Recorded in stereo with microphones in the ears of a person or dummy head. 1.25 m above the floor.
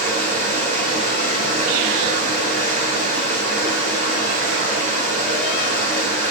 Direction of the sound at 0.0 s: 50° right (ahead or behind).